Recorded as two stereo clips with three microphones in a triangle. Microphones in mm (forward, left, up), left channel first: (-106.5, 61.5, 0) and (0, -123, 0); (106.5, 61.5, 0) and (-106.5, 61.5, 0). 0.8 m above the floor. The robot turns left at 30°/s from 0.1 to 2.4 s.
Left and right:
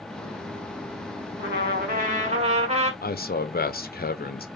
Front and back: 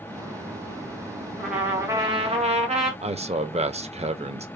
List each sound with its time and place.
1.4 s a trumpet: 90° right, 1.8 m; by 2.9 s 120° right, 1.8 m
3.0 s a man speaking: 130° left, 0.8 m